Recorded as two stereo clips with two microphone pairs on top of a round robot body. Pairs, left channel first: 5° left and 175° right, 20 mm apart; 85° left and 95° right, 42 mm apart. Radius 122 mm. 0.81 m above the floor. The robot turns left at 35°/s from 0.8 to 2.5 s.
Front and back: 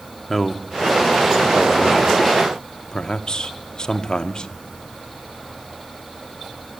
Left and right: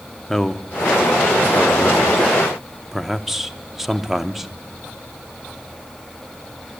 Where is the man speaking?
85° left, 0.7 m; by 4.5 s 25° left, 0.7 m.